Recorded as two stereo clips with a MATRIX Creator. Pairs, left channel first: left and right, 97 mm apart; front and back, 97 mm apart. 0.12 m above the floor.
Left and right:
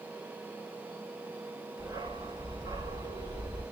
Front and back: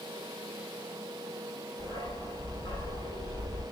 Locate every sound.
1.8 s a dog barking: 40° right, 7.5 m